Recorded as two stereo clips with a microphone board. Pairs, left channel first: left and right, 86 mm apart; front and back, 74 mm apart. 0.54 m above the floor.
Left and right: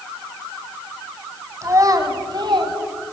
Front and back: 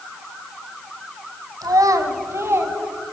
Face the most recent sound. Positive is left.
turn(degrees=-120)